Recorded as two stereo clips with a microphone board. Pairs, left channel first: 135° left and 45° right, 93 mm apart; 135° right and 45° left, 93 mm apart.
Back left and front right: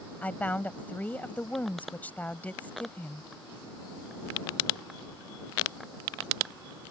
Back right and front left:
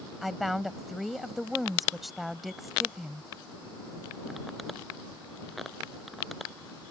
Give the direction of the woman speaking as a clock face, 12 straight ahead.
8 o'clock.